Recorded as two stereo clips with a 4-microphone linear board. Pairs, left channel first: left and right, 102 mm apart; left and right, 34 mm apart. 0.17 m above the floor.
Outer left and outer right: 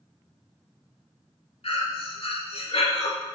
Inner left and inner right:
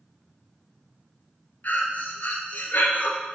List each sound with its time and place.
1.6 s breathing: 75° left (ahead or behind), 0.7 m